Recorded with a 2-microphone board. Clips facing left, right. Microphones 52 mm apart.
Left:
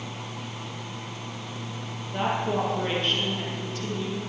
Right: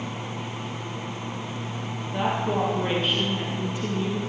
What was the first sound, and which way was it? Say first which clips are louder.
A woman speaking: right 1 dB; 5° left (ahead or behind).